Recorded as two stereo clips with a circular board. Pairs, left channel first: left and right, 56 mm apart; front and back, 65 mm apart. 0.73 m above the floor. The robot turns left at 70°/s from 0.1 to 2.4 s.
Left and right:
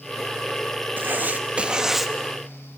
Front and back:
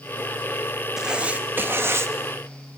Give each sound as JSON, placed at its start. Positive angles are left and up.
{"t": 1.0, "sound": "writing", "azimuth_deg": -100, "distance_m": 0.5}